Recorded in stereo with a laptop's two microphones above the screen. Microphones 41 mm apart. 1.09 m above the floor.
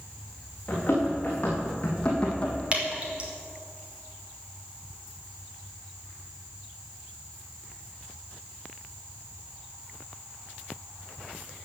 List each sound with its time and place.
0.7 s running footsteps: 25° left (ahead or behind), 4.5 m
2.7 s dripping: 30° right (ahead or behind), 1.7 m